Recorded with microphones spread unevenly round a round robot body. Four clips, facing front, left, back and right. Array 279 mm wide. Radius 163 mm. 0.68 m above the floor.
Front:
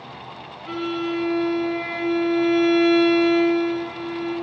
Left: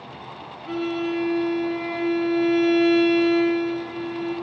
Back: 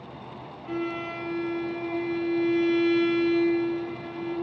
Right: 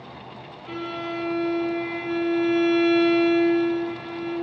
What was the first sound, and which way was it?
A violin, 155° left.